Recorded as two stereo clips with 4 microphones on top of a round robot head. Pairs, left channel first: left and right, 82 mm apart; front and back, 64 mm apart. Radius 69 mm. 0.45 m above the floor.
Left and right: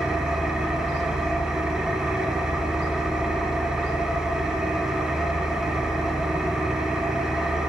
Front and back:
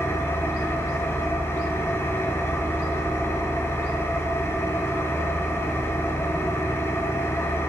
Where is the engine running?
10° right, 0.9 m.